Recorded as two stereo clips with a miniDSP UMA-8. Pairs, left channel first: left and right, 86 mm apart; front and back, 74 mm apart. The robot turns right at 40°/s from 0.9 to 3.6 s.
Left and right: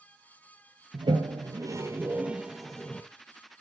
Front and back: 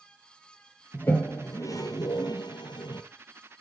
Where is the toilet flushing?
70° right, 1.5 m; by 3.0 s 15° left, 1.5 m.